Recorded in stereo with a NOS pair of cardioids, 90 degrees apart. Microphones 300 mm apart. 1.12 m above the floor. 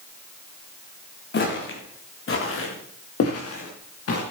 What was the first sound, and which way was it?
Footsteps, 40° left.